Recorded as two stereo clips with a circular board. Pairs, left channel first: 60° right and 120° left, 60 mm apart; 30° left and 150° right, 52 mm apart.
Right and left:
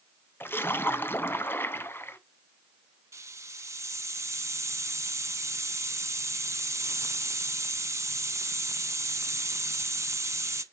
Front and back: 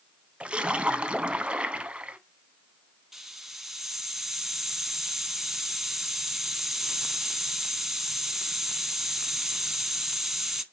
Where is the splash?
90° right, 0.7 m.